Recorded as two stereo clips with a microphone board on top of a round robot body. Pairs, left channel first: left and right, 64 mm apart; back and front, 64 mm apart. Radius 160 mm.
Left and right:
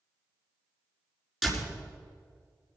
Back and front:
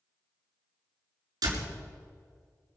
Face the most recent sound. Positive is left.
turn(degrees=-5)